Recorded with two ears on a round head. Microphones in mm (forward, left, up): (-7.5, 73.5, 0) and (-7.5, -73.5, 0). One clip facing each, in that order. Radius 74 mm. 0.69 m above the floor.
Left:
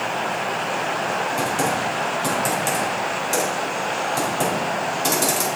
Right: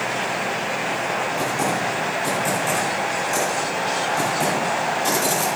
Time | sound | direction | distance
1.4 | typing on a keyboard | 45° left (ahead or behind) | 3 m